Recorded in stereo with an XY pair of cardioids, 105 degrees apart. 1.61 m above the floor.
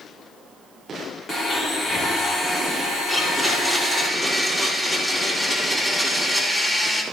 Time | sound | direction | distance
1.3 | a blender | 50° left | 5 m
3.1 | a blender | 20° left | 5 m